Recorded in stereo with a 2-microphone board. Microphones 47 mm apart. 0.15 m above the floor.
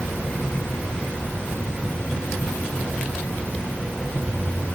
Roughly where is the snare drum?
I don't hear a snare drum.